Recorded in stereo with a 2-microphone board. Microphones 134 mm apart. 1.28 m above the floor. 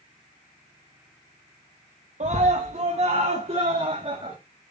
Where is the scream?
55° right (ahead or behind), 1.1 m; by 4.4 s 40° right (ahead or behind), 2 m.